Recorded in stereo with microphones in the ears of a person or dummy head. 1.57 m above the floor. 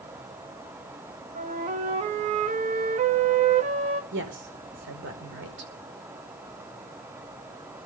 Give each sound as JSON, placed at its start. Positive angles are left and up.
{"t": 1.4, "sound": "a flute", "side_deg": -35, "distance_m": 1.4}
{"t": 4.1, "sound": "a woman speaking", "side_deg": -60, "distance_m": 5.0}